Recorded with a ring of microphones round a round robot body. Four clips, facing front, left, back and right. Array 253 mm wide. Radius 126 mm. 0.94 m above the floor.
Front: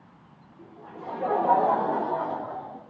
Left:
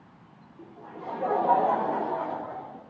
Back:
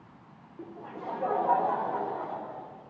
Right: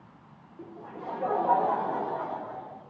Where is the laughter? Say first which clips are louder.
Right 1 dB, back 1 dB; 160° right, 1.1 m; by 2.8 s 25° left, 2.5 m.